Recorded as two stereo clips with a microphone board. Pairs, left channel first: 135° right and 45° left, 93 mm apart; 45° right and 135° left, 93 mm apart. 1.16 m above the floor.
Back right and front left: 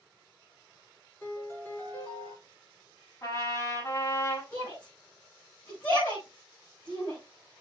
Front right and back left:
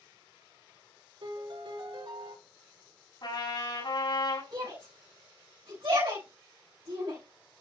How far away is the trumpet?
About 6.5 m.